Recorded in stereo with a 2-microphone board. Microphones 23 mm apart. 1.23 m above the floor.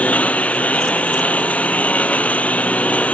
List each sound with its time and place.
0.0 s a lawn mower: 80° left